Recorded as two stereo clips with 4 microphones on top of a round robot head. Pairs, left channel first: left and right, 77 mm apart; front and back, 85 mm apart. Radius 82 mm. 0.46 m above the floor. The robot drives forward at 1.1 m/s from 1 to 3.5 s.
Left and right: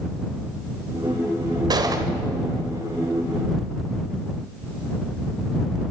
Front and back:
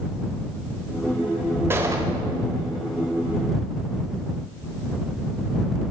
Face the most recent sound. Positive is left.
turn(degrees=-155)